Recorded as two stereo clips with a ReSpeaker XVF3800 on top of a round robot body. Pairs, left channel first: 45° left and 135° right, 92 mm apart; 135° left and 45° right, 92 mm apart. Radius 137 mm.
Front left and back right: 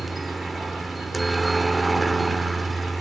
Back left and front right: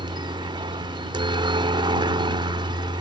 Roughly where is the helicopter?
Ahead right.